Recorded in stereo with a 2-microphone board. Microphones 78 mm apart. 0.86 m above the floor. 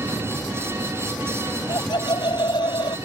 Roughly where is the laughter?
Left.